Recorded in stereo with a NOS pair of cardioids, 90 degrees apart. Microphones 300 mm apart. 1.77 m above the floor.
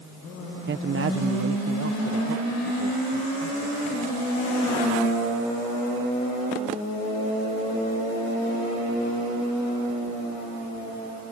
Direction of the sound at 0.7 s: 40° right.